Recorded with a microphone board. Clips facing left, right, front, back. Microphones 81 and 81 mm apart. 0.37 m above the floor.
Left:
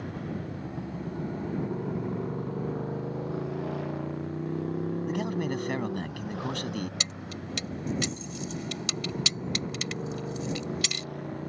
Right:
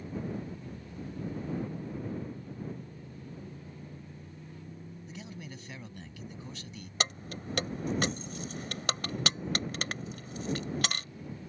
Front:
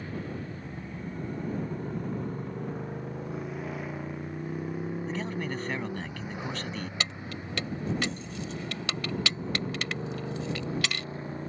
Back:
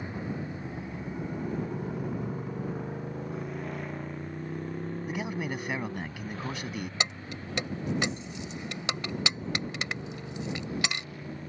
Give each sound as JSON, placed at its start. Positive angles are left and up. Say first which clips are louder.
{"t": 0.0, "sound": "a motorcycle", "louder": "left 2 dB, back 1 dB", "azimuth_deg": 110}
{"t": 5.1, "sound": "a man speaking", "louder": "left 15 dB, even", "azimuth_deg": 105}
{"t": 7.0, "sound": "keys jangling", "louder": "right 1 dB, back 1 dB", "azimuth_deg": -115}